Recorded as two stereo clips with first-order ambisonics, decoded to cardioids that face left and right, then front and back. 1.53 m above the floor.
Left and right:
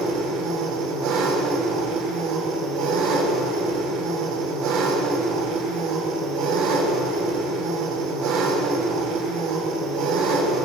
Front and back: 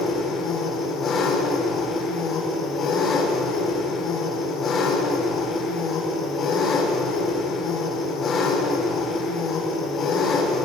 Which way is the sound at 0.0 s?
65° right.